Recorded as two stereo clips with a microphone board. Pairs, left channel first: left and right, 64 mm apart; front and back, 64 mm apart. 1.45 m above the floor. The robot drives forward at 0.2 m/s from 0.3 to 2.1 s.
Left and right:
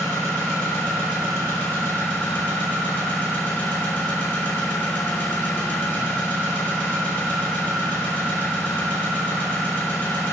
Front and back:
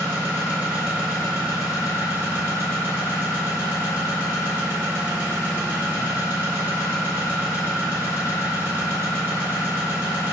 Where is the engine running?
120° left, 1.2 m; by 10.3 s 140° left, 1.4 m.